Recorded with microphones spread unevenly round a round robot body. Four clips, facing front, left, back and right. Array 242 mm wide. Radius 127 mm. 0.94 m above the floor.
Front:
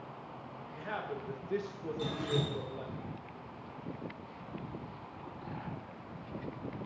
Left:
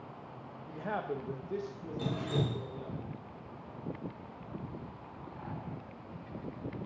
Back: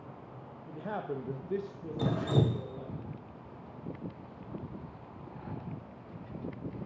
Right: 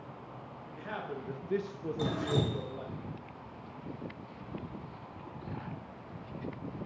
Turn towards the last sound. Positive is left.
turn(degrees=-170)